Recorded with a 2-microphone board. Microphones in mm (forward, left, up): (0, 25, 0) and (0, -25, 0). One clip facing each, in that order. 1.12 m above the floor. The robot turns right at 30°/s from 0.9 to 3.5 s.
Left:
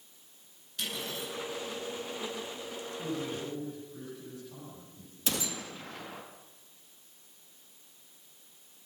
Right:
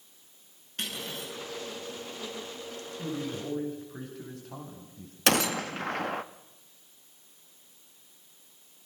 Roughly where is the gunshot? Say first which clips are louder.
Right 10 dB; right.